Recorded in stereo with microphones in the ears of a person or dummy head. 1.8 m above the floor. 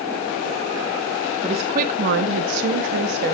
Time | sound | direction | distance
1.4 | a woman speaking | 35° right (ahead or behind) | 1.9 m